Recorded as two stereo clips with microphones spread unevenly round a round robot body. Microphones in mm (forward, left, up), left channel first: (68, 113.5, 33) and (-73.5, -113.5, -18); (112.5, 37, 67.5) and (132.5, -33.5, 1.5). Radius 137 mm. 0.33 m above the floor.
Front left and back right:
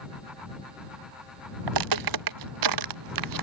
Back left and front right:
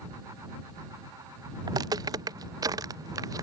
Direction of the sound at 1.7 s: 125° right.